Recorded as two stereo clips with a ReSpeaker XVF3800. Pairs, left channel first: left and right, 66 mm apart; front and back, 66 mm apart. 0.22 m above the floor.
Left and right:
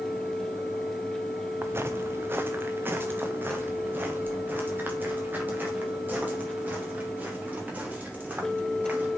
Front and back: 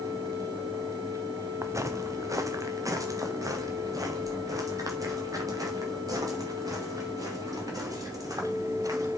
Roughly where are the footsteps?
Behind right.